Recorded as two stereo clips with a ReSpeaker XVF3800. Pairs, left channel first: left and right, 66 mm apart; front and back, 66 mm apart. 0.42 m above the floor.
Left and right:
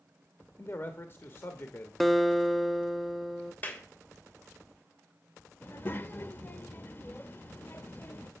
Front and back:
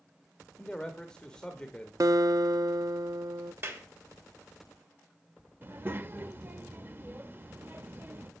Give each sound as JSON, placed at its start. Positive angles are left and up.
{"t": 0.6, "sound": "a man speaking", "azimuth_deg": 70, "distance_m": 1.0}
{"t": 2.0, "sound": "a guitar", "azimuth_deg": 180, "distance_m": 0.6}
{"t": 3.6, "sound": "a clap", "azimuth_deg": 145, "distance_m": 1.6}
{"t": 5.6, "sound": "a child speaking", "azimuth_deg": 135, "distance_m": 0.7}